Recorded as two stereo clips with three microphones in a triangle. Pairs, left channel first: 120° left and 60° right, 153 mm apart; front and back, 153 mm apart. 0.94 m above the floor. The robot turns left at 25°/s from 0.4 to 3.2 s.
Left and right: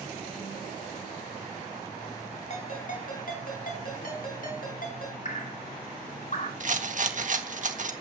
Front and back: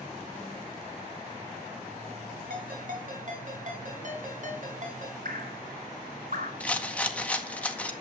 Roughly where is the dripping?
Behind left.